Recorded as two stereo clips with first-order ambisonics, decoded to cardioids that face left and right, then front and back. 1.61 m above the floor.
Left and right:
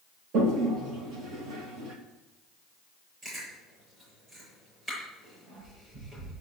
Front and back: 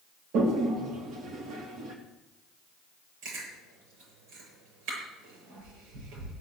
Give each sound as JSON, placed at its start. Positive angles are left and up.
{"t": 0.3, "sound": "a toilet flushing", "azimuth_deg": -135, "distance_m": 2.5}
{"t": 3.2, "sound": "chewing", "azimuth_deg": -160, "distance_m": 7.5}